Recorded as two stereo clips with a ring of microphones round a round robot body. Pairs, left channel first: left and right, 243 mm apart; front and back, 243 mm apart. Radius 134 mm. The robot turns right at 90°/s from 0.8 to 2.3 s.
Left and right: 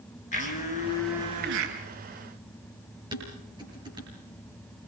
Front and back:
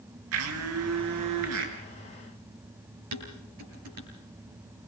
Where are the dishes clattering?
165° right, 8 m.